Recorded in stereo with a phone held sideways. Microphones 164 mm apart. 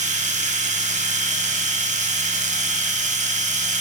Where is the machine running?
45° right (ahead or behind), 0.9 m.